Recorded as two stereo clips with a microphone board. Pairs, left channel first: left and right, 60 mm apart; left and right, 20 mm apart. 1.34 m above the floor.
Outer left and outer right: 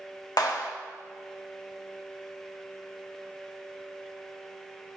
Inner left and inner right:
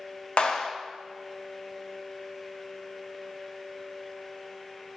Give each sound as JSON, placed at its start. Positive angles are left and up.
{"t": 0.4, "sound": "a clap", "side_deg": 70, "distance_m": 1.3}